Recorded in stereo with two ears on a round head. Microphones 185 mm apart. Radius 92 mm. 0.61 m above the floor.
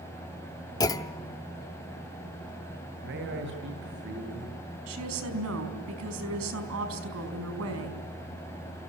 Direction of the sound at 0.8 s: 20° left (ahead or behind).